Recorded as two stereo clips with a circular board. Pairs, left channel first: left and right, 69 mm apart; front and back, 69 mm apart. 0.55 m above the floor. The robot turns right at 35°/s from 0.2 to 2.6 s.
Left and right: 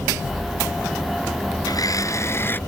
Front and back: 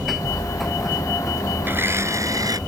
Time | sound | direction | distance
1.6 | a blender | 115° left | ?